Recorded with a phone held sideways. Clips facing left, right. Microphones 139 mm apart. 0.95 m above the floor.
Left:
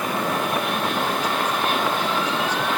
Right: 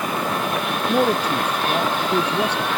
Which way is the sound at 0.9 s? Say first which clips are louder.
Right 5 dB; 65° right (ahead or behind).